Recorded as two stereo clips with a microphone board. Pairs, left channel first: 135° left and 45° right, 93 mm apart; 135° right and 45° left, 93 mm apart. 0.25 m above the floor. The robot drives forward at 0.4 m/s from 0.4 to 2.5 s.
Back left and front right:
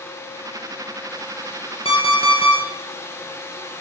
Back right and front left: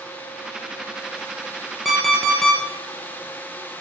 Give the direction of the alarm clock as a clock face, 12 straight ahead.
8 o'clock.